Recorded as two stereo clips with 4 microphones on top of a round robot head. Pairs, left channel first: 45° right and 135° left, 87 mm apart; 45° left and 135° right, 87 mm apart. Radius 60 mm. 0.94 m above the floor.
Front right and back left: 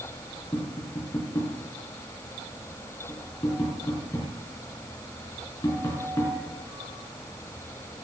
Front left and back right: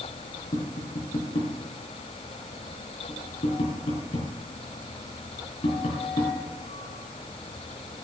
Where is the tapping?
15° left, 4.5 m.